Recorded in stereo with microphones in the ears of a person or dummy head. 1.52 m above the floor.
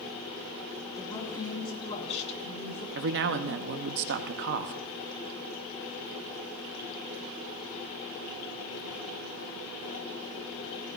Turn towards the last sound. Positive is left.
turn(degrees=-50)  # may be behind; listen again after turning